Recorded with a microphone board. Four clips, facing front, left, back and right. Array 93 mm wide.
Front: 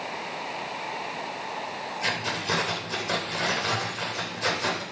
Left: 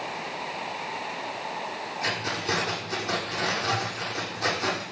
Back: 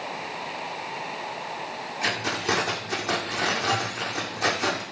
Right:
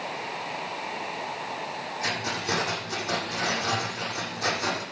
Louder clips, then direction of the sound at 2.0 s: Left 1 dB, back 3 dB; 175° right.